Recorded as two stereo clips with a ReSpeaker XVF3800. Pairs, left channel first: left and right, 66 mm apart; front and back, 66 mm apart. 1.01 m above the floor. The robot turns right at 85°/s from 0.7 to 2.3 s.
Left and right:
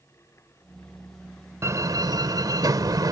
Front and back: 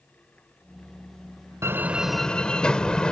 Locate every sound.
1.6 s a door slam: 135° right; by 3.1 s 75° right